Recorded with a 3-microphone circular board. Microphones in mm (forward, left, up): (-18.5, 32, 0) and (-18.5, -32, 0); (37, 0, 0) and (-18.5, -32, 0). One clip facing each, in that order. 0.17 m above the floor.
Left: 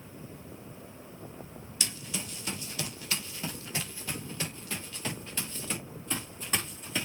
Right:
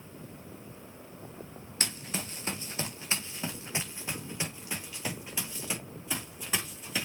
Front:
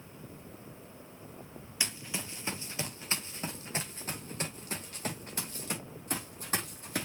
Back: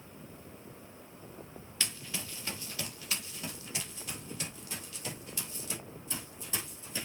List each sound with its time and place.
1.8 s running footsteps: 45° right, 2.5 m; by 7.1 s 5° right, 4.5 m